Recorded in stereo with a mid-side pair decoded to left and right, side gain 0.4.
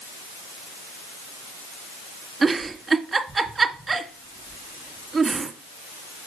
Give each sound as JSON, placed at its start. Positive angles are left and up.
{"t": 2.4, "sound": "a giggle", "azimuth_deg": -40, "distance_m": 1.9}